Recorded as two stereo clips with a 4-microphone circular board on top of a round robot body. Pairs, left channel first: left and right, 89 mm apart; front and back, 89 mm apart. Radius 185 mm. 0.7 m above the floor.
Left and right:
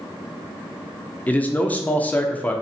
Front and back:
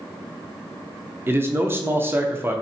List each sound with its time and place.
1.3 s a man speaking: 145° left, 0.8 m